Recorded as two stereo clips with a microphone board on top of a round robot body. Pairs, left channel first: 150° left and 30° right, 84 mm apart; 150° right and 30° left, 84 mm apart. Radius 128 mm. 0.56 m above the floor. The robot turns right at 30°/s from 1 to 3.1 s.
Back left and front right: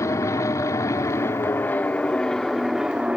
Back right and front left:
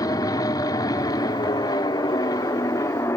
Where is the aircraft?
170° right; by 3.2 s 110° right.